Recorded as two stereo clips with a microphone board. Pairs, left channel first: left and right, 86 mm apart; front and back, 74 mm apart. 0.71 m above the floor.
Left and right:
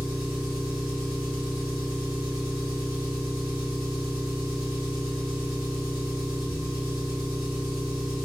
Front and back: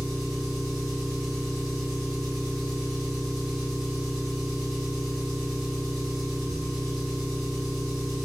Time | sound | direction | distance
0.0 | an engine running | 90° left | 1.6 m